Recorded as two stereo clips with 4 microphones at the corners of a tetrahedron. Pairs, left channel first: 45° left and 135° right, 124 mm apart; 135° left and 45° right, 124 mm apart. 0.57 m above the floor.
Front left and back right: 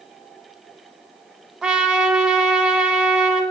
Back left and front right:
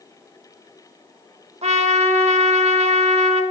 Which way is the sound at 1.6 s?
50° right.